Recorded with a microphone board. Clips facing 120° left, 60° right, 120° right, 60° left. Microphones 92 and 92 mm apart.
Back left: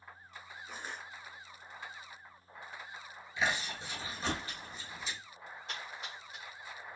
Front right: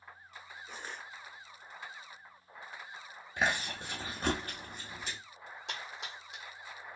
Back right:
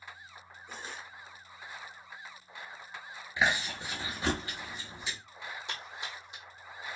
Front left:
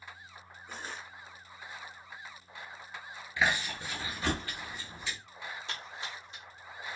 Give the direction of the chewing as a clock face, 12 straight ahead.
2 o'clock.